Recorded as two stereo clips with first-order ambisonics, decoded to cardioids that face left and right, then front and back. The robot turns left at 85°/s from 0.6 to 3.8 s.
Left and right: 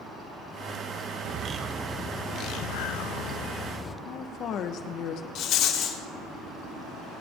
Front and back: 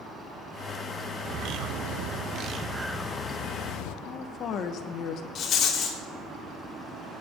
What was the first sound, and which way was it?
A bird, 130° right.